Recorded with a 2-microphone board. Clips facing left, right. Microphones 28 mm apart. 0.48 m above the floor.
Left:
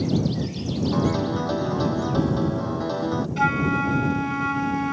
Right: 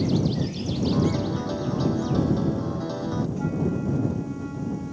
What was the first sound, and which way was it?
A piano, 20° left (ahead or behind).